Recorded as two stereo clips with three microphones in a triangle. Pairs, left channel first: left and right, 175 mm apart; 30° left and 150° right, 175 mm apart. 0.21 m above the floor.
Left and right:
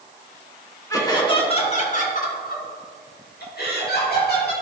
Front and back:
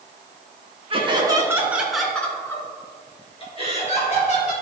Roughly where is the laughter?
Behind.